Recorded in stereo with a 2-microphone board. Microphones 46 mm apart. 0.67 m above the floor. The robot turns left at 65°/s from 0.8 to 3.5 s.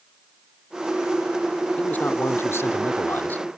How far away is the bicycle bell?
No bicycle bell in this recording.